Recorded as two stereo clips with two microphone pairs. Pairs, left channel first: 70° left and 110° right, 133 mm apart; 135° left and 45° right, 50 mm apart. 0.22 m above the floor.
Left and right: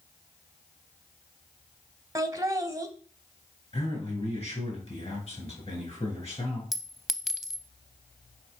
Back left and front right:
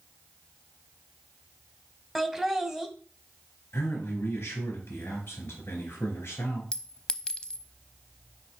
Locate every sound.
2.1 s laughter: 110° right, 1.1 m
3.7 s a man speaking: 105° left, 4 m
6.7 s a clink: 165° left, 0.6 m